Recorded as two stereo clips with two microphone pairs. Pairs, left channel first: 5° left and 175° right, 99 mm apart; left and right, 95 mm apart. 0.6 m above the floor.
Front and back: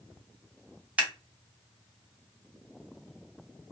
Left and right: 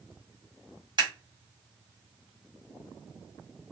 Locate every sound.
1.0 s scissors: 100° right, 1.6 m